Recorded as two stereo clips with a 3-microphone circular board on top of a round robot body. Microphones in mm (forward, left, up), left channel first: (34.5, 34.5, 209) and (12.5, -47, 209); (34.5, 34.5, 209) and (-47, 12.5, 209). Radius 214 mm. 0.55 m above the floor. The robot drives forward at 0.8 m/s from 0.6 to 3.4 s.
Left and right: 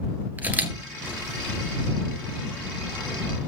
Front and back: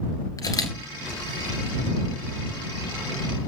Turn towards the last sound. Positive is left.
turn(degrees=-115)